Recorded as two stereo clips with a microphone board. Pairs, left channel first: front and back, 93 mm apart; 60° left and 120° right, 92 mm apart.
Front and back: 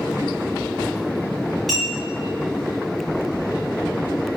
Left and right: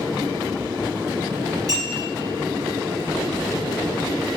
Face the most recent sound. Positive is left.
turn(degrees=-85)